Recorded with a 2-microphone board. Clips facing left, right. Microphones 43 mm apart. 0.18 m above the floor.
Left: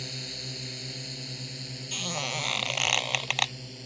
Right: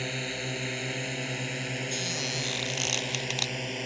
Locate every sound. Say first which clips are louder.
0.0 s a drone: right 7 dB; 45° right (ahead or behind); by 3.9 s 65° right (ahead or behind)
1.9 s a squeak: even; 45° left (ahead or behind)